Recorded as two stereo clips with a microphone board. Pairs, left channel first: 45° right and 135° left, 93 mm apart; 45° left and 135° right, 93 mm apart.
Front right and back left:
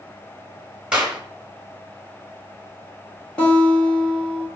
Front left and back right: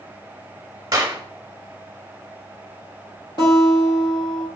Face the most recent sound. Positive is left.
turn(degrees=30)